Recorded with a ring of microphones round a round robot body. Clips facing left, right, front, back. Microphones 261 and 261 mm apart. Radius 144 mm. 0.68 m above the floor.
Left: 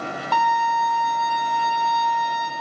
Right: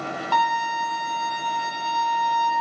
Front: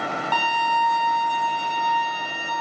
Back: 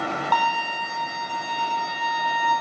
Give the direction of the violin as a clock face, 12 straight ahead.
9 o'clock.